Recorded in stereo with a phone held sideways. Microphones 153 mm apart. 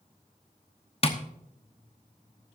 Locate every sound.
1.0 s tapping: 40° left (ahead or behind), 1.0 m